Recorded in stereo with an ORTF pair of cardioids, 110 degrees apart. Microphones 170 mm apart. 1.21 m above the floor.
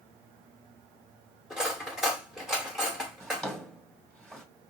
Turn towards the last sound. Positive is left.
turn(degrees=0)